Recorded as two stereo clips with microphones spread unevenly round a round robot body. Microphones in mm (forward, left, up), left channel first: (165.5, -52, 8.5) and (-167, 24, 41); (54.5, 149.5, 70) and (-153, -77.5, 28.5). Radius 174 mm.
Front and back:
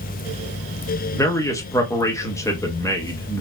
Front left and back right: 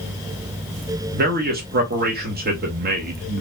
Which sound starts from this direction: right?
A man speaking, at 1.1 s.